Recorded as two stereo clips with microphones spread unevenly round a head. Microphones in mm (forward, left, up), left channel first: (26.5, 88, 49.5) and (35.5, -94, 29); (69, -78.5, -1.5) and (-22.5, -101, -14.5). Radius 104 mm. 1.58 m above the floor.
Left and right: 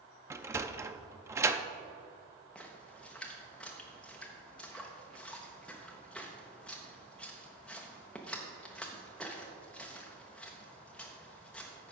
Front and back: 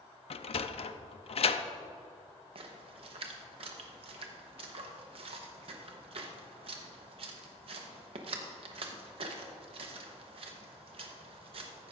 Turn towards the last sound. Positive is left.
turn(degrees=170)